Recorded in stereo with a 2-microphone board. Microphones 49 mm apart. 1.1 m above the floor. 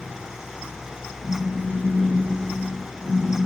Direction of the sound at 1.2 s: 50° left (ahead or behind).